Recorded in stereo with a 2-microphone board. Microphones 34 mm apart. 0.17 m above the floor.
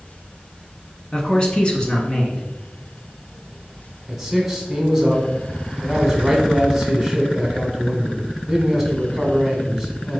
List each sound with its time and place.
1.1 s a man speaking: 20° left (ahead or behind), 1.4 m
4.1 s a man speaking: 10° right (ahead or behind), 1.6 m